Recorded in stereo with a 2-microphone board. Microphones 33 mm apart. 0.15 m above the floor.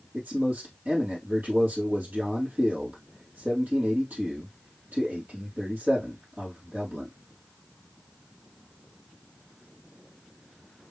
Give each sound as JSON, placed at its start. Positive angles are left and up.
{"t": 0.1, "sound": "a man speaking", "side_deg": -75, "distance_m": 4.0}